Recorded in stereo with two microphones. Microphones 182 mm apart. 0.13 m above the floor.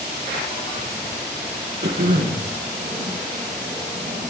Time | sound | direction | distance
1.8 | throat clearing | 65° right (ahead or behind) | 2.5 m